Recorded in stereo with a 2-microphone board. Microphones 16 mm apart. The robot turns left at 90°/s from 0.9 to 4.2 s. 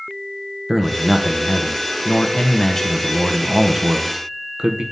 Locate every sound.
0.7 s a man speaking: 165° right, 0.8 m; by 4.8 s 105° right, 0.8 m